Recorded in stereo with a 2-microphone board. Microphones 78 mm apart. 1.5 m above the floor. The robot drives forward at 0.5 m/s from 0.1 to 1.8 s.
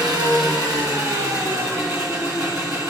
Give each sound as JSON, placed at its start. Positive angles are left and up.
{"t": 0.0, "sound": "an engine running", "side_deg": -55, "distance_m": 2.0}